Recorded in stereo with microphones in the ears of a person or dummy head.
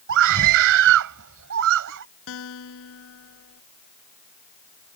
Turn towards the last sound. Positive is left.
turn(degrees=65)  # may be behind; listen again after turning